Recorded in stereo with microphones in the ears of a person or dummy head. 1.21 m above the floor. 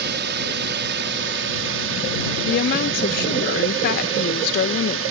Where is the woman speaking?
50° left (ahead or behind).